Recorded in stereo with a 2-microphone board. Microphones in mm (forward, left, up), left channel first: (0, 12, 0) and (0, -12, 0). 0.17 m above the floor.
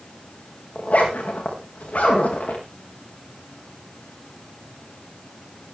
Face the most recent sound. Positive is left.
turn(degrees=70)  # may be behind; listen again after turning